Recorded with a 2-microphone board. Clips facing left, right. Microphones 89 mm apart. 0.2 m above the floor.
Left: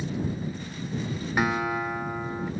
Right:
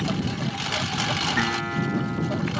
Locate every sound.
0.0 s a lawn mower: 90° right
1.4 s a guitar: 10° left (ahead or behind)